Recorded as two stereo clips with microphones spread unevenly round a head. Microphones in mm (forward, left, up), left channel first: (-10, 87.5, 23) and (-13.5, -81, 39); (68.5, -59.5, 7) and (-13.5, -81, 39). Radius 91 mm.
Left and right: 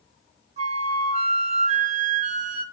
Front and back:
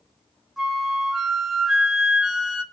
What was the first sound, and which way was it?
A flute, 110° right.